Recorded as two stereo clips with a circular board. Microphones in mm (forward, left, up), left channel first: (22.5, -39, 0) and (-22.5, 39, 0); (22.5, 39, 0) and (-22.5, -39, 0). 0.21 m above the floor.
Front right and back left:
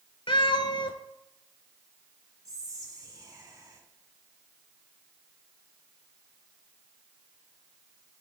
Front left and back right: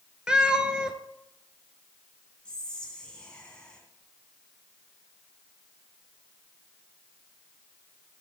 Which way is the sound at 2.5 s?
135° left.